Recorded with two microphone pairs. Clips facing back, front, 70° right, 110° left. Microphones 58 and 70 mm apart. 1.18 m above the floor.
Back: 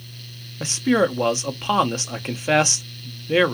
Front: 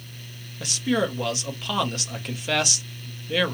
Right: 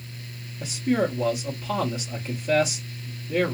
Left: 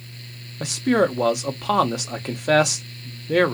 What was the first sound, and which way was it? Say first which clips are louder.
A man speaking: back 5 dB, left 5 dB; 115° left.